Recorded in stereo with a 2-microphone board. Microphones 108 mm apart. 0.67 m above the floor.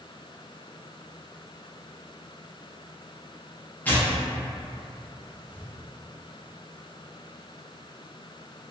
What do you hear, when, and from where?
3.9 s tearing paper: 15° left (ahead or behind), 0.5 m